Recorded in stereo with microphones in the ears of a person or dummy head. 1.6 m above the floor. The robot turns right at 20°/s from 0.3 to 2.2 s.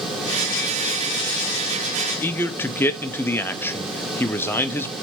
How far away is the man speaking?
About 0.5 m.